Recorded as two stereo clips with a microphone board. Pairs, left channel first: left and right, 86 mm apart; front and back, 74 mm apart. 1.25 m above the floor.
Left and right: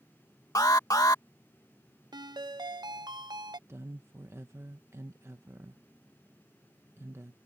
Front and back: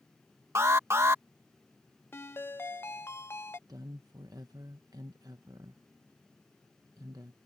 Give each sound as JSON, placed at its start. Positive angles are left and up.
{"t": 0.6, "sound": "an alarm", "azimuth_deg": 130}
{"t": 2.1, "sound": "a ringtone", "azimuth_deg": -60}
{"t": 3.7, "sound": "a woman speaking", "azimuth_deg": -145}